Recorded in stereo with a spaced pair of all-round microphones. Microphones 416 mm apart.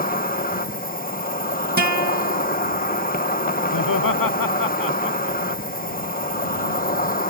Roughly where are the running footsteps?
No running footsteps in this recording.